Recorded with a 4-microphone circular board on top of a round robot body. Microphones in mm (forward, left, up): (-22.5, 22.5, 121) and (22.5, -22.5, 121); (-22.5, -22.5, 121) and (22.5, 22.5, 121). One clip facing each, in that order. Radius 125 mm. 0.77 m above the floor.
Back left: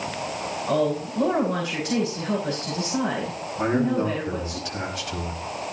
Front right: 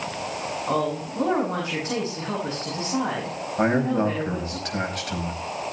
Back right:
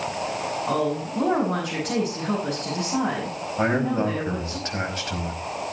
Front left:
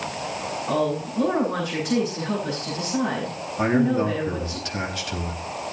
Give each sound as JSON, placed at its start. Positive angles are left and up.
{"t": 0.7, "sound": "a woman speaking", "azimuth_deg": -110, "distance_m": 9.0}
{"t": 3.6, "sound": "a man speaking", "azimuth_deg": -85, "distance_m": 4.5}